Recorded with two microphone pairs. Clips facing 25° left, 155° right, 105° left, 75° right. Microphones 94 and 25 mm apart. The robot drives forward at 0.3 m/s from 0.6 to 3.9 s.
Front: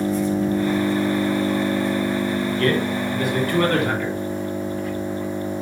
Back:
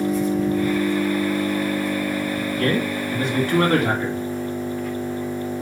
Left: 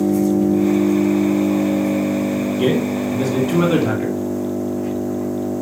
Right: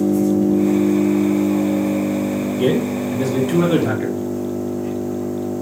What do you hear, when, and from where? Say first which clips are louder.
0.0 s an engine running: even, even; 85° left, 4.5 m; by 5.6 s 95° left, 4.5 m
2.5 s a man speaking: even, right 1 dB; 145° left, 2.5 m; by 4.2 s 155° left, 2.5 m